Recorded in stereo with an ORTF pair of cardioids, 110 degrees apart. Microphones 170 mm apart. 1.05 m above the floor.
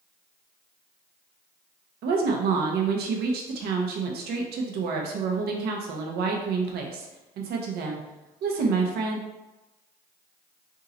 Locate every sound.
2.0 s a woman speaking: 70° right, 0.9 m